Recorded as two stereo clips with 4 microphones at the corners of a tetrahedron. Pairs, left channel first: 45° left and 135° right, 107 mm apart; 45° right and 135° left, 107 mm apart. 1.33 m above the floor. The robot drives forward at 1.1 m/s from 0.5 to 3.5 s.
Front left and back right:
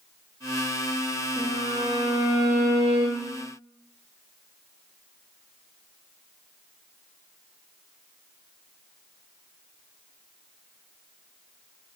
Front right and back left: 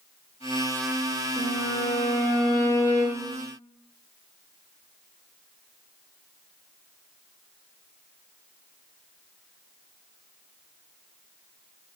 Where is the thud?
I don't hear a thud.